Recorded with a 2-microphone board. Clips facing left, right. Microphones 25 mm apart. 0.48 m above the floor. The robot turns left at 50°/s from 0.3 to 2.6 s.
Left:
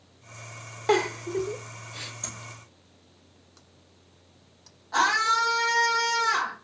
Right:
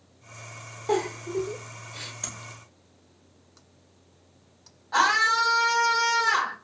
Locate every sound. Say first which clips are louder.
0.9 s a giggle: left 2 dB; 60° left (ahead or behind), 0.7 m; by 2.1 s centre (ahead or behind), 0.7 m
2.2 s tapping: right 1 dB; 30° right (ahead or behind), 3.5 m; by 2.4 s 20° right (ahead or behind), 3.5 m
4.9 s a scream: right 1 dB; 20° right (ahead or behind), 2.5 m